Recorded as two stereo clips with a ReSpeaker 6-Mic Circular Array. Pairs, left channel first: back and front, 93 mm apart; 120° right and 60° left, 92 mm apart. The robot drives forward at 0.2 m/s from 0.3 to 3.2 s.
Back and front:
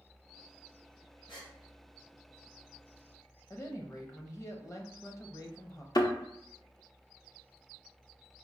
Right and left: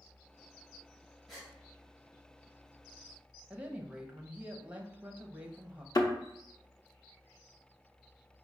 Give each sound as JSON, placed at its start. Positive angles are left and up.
{"t": 1.3, "sound": "a gasp", "azimuth_deg": 150, "distance_m": 1.7}
{"t": 3.5, "sound": "a woman speaking", "azimuth_deg": 135, "distance_m": 0.7}
{"t": 6.0, "sound": "a thud", "azimuth_deg": -155, "distance_m": 0.7}